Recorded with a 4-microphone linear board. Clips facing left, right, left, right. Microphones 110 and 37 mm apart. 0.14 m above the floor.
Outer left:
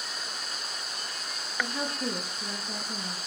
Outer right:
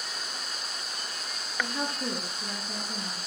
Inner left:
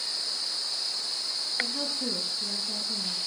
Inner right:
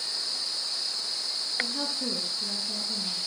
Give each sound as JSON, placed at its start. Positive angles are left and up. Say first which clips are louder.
{"t": 1.6, "sound": "a woman speaking", "louder": "even, even", "side_deg": 5, "distance_m": 2.5}